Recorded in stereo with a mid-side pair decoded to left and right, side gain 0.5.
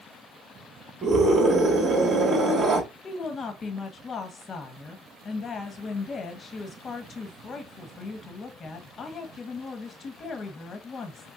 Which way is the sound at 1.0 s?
45° right.